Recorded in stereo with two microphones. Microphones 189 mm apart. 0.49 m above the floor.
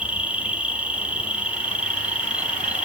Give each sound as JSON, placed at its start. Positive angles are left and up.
{"t": 0.0, "sound": "an insect", "side_deg": -5, "distance_m": 0.8}